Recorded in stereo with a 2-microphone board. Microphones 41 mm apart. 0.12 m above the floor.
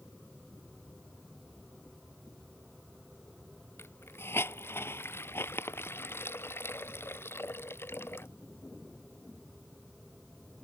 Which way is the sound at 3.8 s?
75° left (ahead or behind).